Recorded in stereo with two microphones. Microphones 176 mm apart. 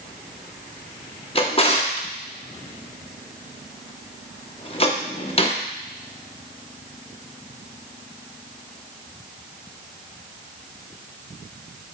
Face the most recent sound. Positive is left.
turn(degrees=35)  # may be behind; listen again after turning